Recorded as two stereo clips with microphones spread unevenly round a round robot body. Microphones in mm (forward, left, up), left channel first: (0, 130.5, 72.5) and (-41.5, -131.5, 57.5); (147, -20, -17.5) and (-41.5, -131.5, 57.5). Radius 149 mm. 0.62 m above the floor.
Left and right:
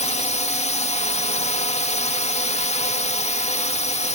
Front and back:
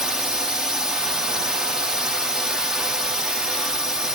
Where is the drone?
70° left.